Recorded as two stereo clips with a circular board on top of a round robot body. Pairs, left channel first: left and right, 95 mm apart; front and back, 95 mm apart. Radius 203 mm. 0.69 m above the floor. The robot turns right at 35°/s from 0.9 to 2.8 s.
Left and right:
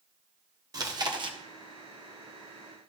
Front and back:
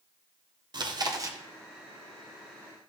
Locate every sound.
0.7 s chewing: 140° right, 1.4 m; by 1.4 s 120° right, 1.4 m